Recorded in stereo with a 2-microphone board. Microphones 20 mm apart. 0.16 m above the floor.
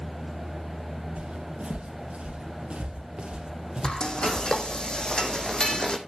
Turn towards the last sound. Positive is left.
turn(degrees=40)  # may be behind; listen again after turning